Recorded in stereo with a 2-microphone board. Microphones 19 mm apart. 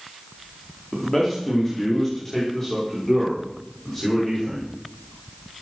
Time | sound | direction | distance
0.9 | a man speaking | 20° left (ahead or behind) | 4.5 m